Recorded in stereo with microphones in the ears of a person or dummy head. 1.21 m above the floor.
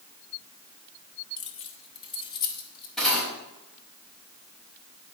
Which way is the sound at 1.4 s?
30° left (ahead or behind).